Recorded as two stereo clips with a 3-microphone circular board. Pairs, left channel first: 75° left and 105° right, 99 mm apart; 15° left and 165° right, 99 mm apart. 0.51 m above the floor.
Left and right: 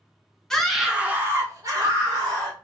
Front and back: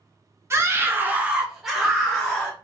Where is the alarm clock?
No alarm clock in this recording.